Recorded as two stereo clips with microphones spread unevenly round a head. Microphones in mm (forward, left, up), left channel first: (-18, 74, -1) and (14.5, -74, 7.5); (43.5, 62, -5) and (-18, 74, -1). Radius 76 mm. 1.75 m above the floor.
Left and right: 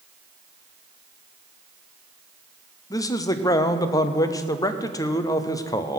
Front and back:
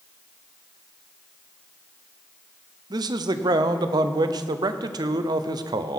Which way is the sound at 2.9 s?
170° left.